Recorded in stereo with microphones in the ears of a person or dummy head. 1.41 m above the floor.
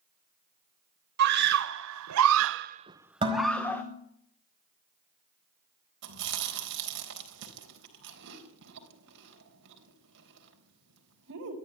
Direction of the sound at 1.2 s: 55° right (ahead or behind).